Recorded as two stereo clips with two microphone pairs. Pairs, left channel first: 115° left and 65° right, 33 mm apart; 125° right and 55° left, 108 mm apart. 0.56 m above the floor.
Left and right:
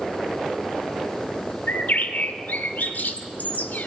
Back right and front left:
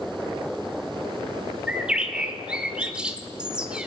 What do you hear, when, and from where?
1.7 s a bird: 130° left, 0.8 m